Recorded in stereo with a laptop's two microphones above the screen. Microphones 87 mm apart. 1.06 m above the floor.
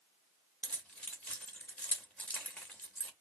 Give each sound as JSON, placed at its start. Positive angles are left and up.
{"t": 0.6, "sound": "keys jangling", "side_deg": 15, "distance_m": 0.9}